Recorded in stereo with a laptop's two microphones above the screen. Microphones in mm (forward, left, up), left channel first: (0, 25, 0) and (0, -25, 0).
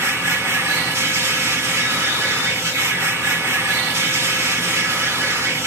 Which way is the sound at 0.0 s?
85° right.